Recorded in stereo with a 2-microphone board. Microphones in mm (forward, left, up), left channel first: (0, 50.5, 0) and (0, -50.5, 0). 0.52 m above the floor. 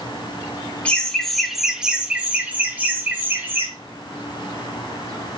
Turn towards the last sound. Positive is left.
turn(degrees=-20)  # may be behind; listen again after turning